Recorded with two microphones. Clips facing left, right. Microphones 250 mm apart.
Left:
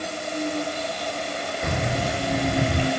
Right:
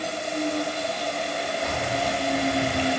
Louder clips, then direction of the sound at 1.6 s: Left 3 dB; 60° left (ahead or behind).